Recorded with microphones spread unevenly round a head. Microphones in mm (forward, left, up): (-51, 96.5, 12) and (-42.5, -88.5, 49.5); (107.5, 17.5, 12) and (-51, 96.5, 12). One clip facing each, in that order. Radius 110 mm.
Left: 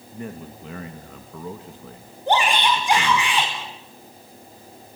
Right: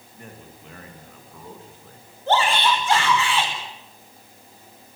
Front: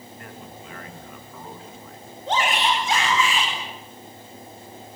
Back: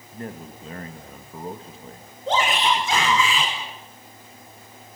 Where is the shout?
170° left, 5.5 m.